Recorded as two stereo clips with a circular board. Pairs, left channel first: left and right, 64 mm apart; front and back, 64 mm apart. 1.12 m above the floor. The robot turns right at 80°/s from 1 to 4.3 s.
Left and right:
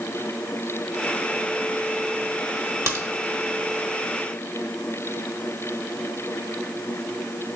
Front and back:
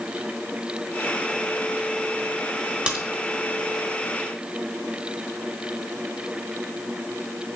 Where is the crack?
115° right, 1.2 m; by 3.0 s 100° right, 1.2 m.